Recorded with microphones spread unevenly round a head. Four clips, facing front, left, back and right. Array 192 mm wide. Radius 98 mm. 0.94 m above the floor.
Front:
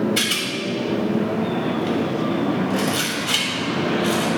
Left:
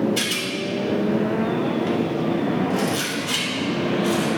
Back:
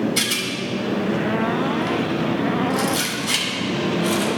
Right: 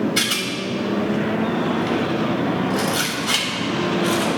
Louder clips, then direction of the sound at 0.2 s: Right 1 dB, even; 70° right.